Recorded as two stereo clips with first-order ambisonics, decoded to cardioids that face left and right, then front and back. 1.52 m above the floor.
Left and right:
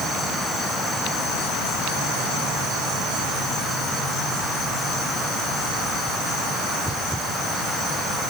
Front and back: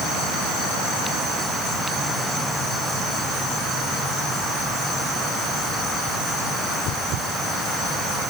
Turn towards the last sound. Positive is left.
No sound to turn to.